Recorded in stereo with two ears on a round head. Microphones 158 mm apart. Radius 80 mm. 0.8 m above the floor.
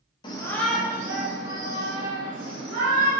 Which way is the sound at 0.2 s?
25° left (ahead or behind).